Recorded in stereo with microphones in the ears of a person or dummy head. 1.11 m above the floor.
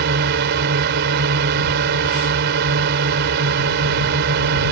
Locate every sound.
0.0 s a drone: 55° right (ahead or behind)